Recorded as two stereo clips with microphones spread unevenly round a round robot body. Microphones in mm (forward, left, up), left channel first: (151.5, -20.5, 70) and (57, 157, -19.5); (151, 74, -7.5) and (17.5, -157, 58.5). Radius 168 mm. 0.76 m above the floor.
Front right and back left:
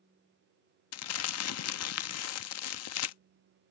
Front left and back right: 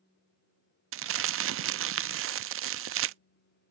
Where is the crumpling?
70° right.